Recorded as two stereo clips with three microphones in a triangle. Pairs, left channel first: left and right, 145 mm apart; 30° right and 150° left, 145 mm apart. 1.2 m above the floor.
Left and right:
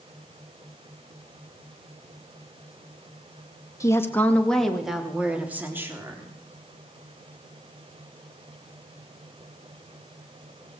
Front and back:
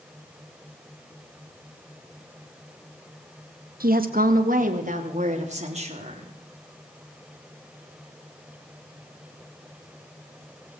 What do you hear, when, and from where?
3.8 s a woman speaking: 160° left, 2 m; by 6.3 s 160° right, 4 m